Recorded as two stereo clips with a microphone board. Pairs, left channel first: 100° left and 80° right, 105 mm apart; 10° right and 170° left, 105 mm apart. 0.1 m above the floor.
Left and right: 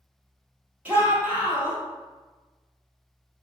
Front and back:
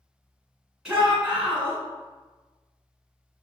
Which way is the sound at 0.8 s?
115° right.